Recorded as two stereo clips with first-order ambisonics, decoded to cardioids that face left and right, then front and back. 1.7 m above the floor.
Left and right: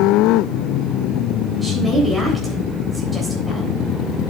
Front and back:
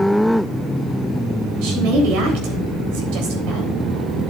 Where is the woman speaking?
170° right, 3.5 m.